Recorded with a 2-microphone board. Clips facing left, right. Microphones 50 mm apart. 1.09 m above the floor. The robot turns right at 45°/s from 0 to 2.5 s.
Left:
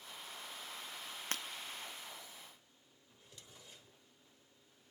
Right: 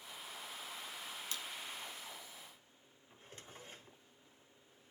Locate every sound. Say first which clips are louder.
1.3 s breaking glass: left 6 dB; 55° left (ahead or behind), 0.7 m; by 1.4 s 60° left (ahead or behind), 0.7 m
3.1 s a drawer: right 5 dB; 40° right (ahead or behind), 1.0 m